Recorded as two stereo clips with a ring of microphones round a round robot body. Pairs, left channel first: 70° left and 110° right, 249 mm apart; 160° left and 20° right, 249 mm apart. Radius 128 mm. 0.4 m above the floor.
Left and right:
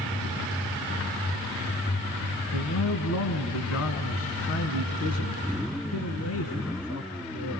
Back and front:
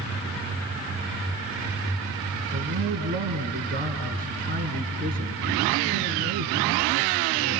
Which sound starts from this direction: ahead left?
A man speaking, at 2.5 s.